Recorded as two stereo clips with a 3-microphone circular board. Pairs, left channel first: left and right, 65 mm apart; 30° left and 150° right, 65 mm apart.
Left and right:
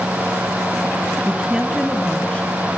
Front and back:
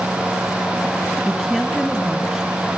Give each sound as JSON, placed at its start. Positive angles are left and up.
{"t": 1.2, "sound": "a woman speaking", "azimuth_deg": -60, "distance_m": 1.3}